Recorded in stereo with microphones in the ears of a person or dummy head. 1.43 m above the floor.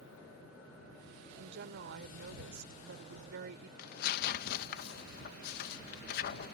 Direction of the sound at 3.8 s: 55° left (ahead or behind).